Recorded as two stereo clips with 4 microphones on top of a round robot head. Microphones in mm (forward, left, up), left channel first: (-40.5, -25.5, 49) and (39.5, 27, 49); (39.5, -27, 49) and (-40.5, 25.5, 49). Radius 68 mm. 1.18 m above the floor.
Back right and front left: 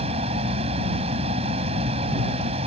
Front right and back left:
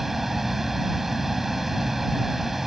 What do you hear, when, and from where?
0.0 s a vehicle: 60° left